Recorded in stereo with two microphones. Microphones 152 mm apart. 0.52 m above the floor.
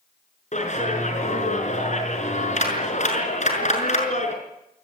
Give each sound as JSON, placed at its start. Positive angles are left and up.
{"t": 0.5, "sound": "a clap", "side_deg": 50, "distance_m": 6.0}